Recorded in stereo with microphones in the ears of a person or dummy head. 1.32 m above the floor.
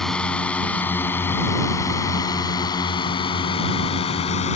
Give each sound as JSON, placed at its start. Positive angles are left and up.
{"t": 0.0, "sound": "a drone", "side_deg": 5}